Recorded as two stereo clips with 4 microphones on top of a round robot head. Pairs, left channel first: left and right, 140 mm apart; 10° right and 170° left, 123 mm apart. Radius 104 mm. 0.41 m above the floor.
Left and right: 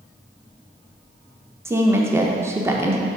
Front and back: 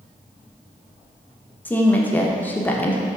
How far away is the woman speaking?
About 0.8 m.